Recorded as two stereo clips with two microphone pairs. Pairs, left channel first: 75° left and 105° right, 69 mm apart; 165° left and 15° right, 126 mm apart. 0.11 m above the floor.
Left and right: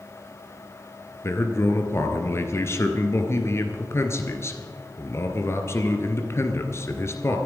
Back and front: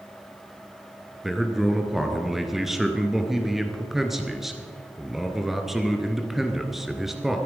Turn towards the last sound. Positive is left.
turn(degrees=70)